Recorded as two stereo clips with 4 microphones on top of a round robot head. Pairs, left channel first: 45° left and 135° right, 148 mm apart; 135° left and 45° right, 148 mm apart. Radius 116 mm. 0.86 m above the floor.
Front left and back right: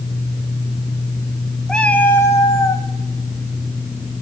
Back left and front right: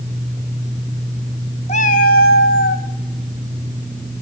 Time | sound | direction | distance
1.7 | a cat meowing | 130° left | 0.6 m